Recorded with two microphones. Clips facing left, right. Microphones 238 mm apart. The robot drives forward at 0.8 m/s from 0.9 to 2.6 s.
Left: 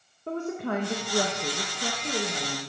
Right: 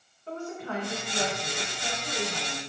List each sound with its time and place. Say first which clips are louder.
0.3 s a woman speaking: left 6 dB; 55° left (ahead or behind), 0.9 m; by 2.6 s 35° left (ahead or behind), 1.2 m